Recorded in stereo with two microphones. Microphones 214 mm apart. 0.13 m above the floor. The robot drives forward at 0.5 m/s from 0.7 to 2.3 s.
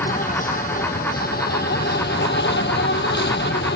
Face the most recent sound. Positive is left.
turn(degrees=55)  # may be behind; listen again after turning